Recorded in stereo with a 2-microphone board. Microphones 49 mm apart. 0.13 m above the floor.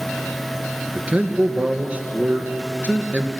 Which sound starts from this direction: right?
A man speaking, at 0.9 s.